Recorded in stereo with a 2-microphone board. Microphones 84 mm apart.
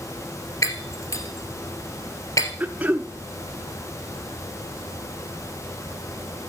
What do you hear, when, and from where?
0.6 s breaking glass: 40° left (ahead or behind), 2 m
2.6 s throat clearing: 20° right (ahead or behind), 0.8 m